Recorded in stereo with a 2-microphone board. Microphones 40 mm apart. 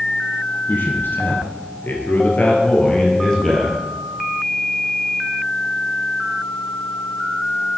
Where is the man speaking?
70° left (ahead or behind), 3.5 m; by 3.8 s 5° left (ahead or behind), 3 m.